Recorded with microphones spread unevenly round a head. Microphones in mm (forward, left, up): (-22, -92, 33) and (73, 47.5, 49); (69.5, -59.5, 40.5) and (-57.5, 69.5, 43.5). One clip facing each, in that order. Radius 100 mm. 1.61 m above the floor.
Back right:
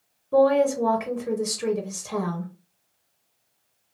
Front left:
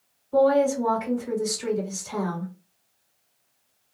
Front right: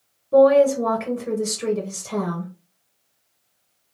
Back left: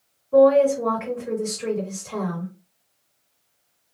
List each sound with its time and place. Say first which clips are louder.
0.3 s a woman speaking: back right 1 dB, front right 1 dB; 100° right, 1.2 m